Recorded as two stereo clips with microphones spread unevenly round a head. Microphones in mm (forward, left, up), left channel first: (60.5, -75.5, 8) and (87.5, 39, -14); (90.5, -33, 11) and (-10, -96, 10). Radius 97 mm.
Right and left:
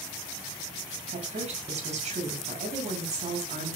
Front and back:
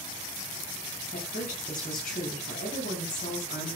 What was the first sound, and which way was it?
A woman speaking, 60° left.